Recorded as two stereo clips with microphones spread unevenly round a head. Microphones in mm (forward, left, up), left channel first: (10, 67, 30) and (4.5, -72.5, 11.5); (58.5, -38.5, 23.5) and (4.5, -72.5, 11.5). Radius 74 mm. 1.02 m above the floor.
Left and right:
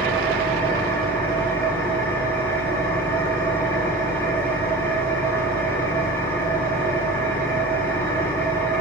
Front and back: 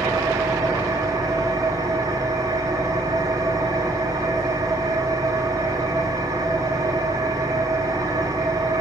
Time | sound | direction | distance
0.0 | an engine running | 165° left | 3.5 m